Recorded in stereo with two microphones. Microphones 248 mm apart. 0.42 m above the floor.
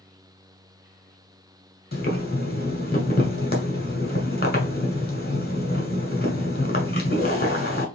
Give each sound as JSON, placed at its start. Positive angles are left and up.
{"t": 1.9, "sound": "boiling", "side_deg": 40, "distance_m": 1.5}